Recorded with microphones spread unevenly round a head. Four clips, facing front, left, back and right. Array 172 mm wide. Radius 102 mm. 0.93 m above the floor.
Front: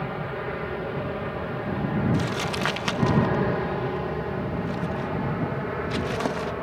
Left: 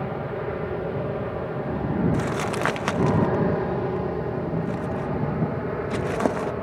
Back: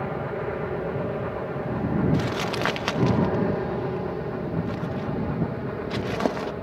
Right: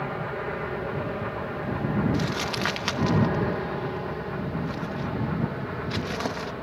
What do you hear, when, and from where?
0.0 s an aircraft: 135° left; by 6.6 s 90° left
2.1 s crumpling: 125° left